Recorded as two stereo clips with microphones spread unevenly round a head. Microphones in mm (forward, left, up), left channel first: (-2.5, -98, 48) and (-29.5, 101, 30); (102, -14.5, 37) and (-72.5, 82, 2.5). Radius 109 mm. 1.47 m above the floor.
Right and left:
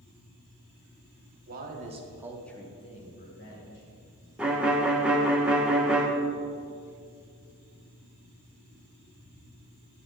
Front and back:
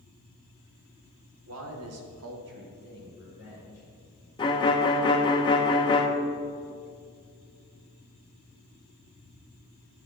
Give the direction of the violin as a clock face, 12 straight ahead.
12 o'clock.